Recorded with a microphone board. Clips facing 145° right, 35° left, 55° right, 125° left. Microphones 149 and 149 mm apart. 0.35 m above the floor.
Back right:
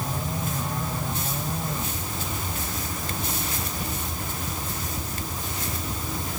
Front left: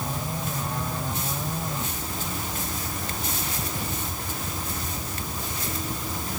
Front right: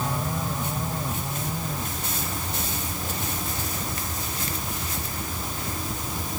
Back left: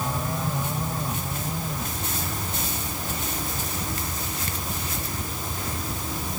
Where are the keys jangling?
No keys jangling in this recording.